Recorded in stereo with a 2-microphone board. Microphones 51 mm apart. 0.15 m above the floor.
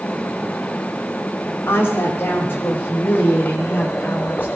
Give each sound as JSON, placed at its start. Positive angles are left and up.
{"t": 1.7, "sound": "a woman speaking", "side_deg": 50, "distance_m": 7.5}